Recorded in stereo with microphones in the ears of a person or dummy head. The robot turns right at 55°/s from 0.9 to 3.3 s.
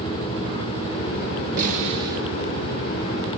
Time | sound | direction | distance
1.6 | a snare drum | 50° right | 7.5 m